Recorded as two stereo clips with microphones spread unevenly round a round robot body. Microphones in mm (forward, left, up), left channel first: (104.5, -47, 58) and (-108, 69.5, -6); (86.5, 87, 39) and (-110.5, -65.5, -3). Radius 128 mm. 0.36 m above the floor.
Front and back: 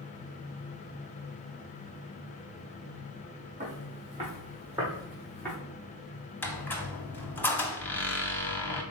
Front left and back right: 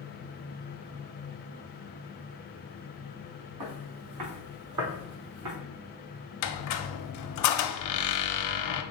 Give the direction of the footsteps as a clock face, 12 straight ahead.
5 o'clock.